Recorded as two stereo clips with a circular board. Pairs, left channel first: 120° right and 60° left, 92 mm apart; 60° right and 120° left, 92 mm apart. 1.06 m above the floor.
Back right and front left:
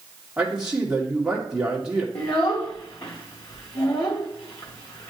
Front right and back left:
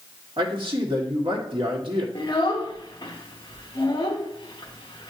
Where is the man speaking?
145° left, 2.0 m.